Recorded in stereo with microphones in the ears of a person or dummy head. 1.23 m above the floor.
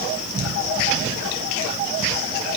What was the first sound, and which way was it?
Only background noise.